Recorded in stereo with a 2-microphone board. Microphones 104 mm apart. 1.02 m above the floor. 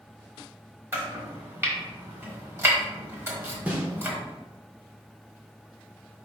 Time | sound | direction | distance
0.9 | chopping | 20° right (ahead or behind) | 1.2 m
3.7 | a snare drum | 15° right (ahead or behind) | 1.0 m